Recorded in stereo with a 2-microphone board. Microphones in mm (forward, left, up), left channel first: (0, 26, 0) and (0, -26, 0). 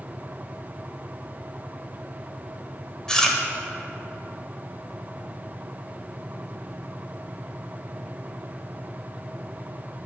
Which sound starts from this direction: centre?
Chewing, at 3.1 s.